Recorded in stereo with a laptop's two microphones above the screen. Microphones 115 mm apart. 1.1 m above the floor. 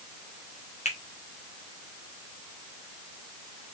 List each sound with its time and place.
0.8 s a finger snap: 85° left, 1.2 m